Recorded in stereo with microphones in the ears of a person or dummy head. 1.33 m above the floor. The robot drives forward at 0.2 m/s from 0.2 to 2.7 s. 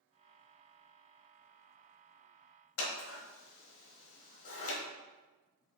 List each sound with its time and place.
2.8 s scissors: 85° left, 1.1 m